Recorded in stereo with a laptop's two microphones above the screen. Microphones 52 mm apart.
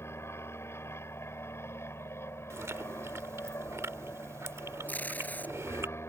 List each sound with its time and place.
0.0 s an aircraft: 55° left (ahead or behind)
2.5 s chewing: 65° right (ahead or behind)
4.9 s tape being pulled: 35° left (ahead or behind)